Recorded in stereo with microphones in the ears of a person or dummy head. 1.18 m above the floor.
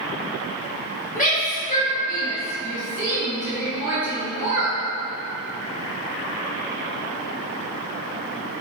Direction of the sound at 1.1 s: 45° left (ahead or behind).